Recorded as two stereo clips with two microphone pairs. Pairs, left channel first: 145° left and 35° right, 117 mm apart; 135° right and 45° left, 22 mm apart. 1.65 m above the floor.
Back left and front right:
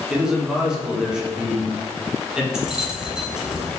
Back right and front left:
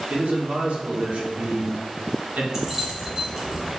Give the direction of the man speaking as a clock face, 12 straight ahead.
11 o'clock.